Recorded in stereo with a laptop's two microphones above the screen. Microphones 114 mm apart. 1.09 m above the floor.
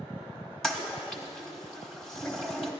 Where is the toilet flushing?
5° left (ahead or behind), 1.0 m.